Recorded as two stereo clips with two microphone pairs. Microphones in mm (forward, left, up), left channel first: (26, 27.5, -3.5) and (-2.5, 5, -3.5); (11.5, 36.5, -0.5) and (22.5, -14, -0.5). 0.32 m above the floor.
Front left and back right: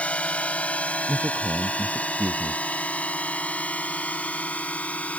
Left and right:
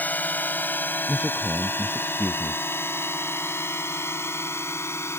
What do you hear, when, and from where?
0.0 s a drone: 65° left; by 5.2 s 80° left
1.1 s a man speaking: 150° right